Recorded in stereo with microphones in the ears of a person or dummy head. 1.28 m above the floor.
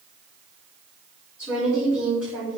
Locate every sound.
1.4 s a woman speaking: 5° left (ahead or behind), 4 m